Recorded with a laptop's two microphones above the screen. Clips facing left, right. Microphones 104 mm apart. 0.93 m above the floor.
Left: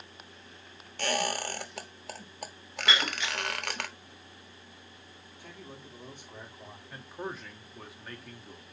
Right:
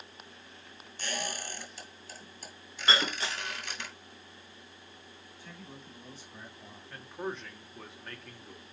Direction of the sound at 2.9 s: 40° right (ahead or behind).